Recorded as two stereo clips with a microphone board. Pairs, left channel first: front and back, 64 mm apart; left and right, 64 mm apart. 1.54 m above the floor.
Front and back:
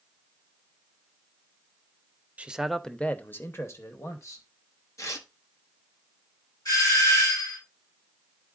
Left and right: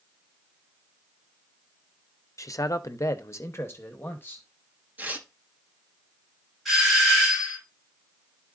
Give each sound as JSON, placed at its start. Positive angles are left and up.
{"t": 2.4, "sound": "a man speaking", "azimuth_deg": 115, "distance_m": 0.6}
{"t": 5.0, "sound": "tearing paper", "azimuth_deg": -30, "distance_m": 1.1}
{"t": 6.7, "sound": "a doorbell", "azimuth_deg": 0, "distance_m": 6.0}